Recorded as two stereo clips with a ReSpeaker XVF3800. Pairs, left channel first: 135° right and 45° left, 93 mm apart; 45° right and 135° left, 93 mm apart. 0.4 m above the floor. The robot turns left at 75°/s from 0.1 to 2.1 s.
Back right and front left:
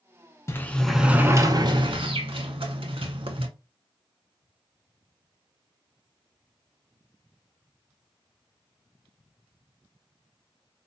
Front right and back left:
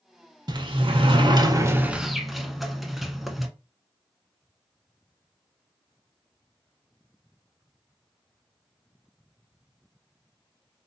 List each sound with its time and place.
0.5 s a sliding door: 170° left, 0.6 m; by 3.5 s 45° left, 0.6 m